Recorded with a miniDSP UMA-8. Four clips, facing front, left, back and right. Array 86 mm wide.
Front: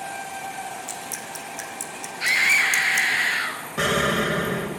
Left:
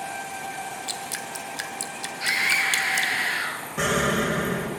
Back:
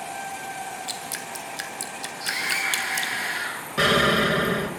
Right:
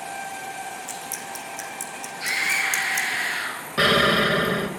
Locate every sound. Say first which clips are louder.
0.9 s dripping: even, even; 130° left, 1.9 m
2.2 s a scream: left 1 dB, front 7 dB; 5° left, 5 m
3.8 s an explosion: right 4 dB, back 2 dB; 115° right, 1.5 m